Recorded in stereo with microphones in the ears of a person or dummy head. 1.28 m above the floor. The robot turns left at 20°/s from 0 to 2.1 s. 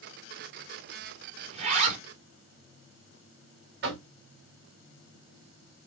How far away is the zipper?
About 2 m.